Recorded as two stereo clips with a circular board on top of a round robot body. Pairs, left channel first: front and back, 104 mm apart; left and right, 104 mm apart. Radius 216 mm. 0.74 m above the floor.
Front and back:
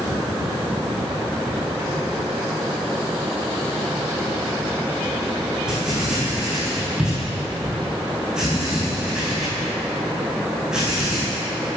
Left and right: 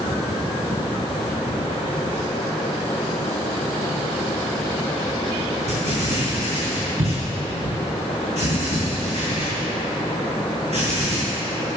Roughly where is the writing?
Right.